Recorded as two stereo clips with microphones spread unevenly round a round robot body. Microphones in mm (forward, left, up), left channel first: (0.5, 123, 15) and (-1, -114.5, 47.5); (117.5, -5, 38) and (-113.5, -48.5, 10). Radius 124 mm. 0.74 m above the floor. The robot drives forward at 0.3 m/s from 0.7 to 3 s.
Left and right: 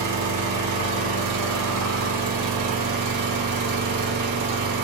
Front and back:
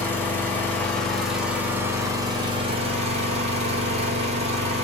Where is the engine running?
70° right, 1.2 m; by 4.8 s 105° right, 1.2 m.